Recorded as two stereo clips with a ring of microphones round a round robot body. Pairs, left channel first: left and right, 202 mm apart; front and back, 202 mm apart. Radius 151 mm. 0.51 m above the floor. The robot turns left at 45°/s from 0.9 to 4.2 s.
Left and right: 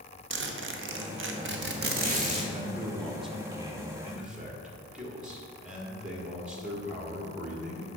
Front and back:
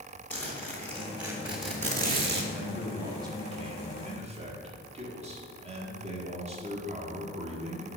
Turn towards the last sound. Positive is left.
turn(degrees=-170)